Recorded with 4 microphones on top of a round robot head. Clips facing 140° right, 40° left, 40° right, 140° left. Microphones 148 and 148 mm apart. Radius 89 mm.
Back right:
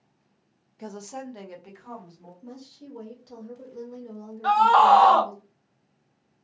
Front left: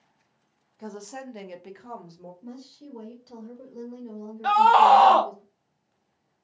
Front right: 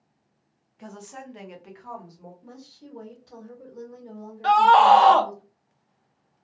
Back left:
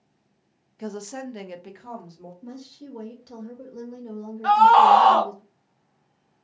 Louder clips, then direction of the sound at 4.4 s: Front left 1 dB, back left 1 dB; 15° right.